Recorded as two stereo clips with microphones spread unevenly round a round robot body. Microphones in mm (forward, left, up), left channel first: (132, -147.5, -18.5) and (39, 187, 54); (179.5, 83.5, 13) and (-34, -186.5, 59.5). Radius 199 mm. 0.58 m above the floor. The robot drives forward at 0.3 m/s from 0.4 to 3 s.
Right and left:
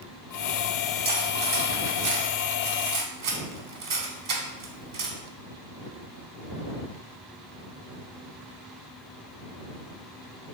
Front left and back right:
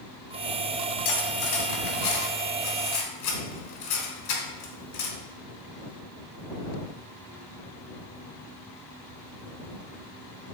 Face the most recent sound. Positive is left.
turn(degrees=60)